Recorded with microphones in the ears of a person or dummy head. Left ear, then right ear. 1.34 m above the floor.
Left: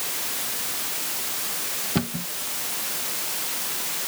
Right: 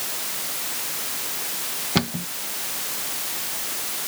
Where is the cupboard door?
30° right (ahead or behind).